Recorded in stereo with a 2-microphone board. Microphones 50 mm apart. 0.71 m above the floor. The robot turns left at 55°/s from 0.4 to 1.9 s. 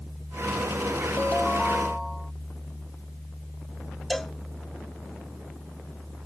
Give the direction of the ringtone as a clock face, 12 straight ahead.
11 o'clock.